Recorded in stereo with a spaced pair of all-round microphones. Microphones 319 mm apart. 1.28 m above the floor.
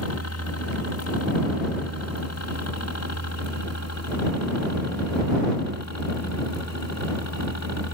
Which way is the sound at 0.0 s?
50° left (ahead or behind).